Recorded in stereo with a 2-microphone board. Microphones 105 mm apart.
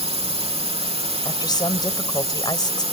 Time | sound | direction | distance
0.0 | a drone | 70° right (ahead or behind) | ?
1.2 | a woman speaking | 40° left (ahead or behind) | ?